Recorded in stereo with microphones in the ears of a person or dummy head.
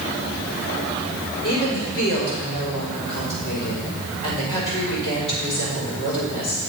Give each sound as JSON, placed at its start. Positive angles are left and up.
{"t": 1.4, "sound": "a woman speaking", "side_deg": 35, "distance_m": 4.5}